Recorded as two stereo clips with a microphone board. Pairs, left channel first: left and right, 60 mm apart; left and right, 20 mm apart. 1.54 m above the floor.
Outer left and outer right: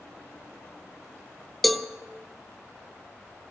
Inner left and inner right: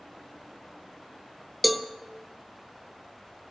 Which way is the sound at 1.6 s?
Centre (ahead or behind).